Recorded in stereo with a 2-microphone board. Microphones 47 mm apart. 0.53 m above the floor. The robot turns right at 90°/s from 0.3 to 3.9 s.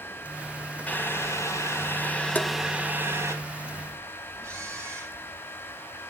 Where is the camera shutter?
80° right, 7 m.